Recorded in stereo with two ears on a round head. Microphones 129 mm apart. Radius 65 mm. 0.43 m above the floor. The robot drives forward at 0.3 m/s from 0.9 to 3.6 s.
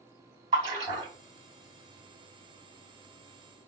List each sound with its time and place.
0.5 s a splash: 35° right (ahead or behind), 1.7 m